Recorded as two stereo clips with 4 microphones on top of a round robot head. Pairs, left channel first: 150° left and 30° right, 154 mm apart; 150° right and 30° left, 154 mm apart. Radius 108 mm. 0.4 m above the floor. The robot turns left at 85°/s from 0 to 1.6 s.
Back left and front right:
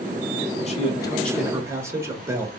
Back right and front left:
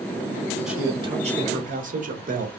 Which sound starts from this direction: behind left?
A man speaking, at 0.7 s.